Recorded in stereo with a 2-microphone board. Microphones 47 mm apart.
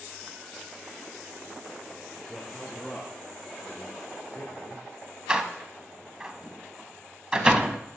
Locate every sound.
2.3 s a man speaking: centre (ahead or behind), 2 m; by 4.8 s 55° left (ahead or behind), 4 m
5.3 s a door slam: 20° right (ahead or behind), 0.6 m